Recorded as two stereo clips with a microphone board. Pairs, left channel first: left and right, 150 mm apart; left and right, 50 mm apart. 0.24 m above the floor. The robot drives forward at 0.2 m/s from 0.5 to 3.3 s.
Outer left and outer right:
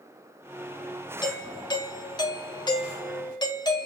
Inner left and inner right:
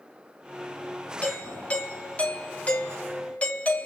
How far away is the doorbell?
About 1.6 m.